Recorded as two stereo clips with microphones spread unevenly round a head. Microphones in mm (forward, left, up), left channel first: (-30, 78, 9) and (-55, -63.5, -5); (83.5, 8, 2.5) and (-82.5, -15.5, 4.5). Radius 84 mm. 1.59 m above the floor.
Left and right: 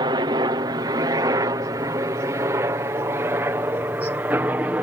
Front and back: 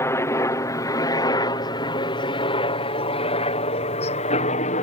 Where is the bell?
No bell in this recording.